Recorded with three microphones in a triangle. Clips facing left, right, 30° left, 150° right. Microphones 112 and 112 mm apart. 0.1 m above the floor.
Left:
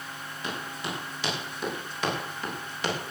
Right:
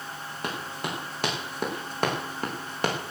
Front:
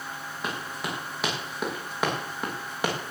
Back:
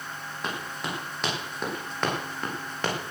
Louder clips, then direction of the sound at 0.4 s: Right 2 dB, even; 60° right.